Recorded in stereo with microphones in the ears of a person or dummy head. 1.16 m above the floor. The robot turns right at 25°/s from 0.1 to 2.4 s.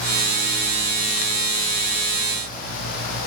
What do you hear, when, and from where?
Only background noise.